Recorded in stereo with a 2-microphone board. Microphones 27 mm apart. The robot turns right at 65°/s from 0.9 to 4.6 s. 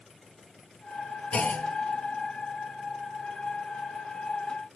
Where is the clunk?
55° left (ahead or behind), 1.1 m; by 1.7 s 70° left (ahead or behind), 1.1 m.